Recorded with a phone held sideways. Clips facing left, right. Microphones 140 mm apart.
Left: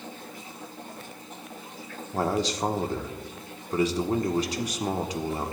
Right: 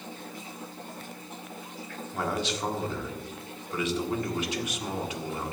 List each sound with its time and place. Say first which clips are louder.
2.1 s a man speaking: left 4 dB; 35° left (ahead or behind), 1.5 m